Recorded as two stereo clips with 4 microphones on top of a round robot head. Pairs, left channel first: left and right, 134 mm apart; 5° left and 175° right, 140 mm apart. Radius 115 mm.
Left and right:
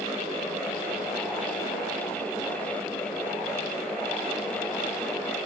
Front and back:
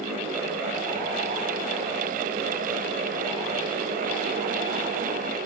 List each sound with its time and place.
Only background noise.